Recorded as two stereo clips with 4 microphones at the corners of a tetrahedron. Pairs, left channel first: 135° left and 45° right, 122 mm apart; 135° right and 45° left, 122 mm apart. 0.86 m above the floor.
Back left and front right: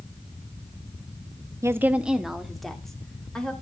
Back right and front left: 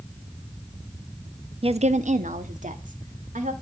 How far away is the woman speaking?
About 0.6 m.